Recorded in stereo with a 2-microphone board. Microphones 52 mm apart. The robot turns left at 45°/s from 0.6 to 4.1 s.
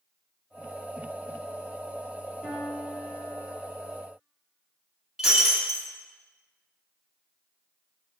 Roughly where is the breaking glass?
Centre.